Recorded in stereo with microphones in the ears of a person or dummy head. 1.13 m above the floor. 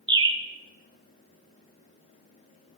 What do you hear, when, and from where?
0.1 s a bird: 25° right (ahead or behind), 0.6 m